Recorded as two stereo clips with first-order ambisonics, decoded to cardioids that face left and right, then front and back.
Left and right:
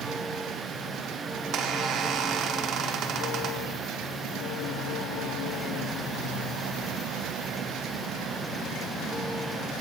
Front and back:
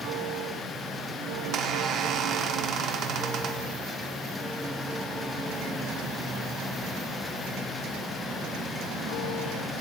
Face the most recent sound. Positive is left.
turn(degrees=-135)